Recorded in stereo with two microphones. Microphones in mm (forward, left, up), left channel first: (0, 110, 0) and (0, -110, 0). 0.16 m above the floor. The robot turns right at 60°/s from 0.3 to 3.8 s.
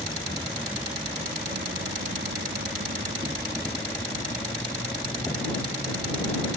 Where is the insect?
160° left; by 6.6 s 10° left.